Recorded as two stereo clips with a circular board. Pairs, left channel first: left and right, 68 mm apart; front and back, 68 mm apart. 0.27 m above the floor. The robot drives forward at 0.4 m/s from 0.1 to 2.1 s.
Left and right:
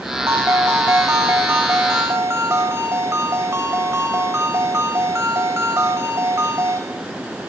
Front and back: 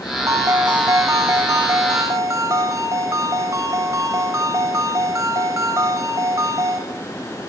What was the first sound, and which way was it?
A ringtone, 135° right.